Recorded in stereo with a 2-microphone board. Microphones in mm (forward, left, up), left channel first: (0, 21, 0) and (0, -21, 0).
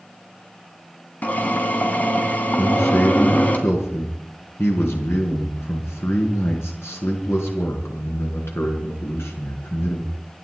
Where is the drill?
40° left (ahead or behind), 3 m.